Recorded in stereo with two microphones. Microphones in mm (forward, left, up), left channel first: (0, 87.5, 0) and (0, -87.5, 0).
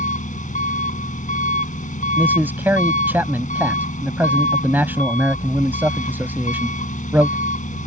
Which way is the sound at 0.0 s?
50° left (ahead or behind).